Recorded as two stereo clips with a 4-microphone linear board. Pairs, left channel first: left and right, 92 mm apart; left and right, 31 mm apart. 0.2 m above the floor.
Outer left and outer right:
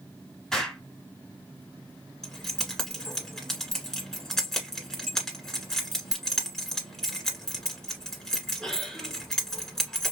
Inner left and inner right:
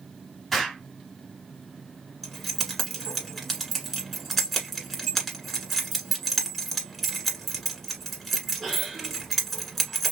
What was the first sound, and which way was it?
An explosion, 5° left (ahead or behind).